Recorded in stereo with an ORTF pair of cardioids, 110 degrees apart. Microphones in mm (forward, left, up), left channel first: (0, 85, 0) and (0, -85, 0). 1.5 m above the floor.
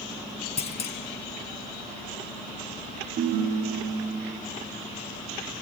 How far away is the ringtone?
About 1.9 m.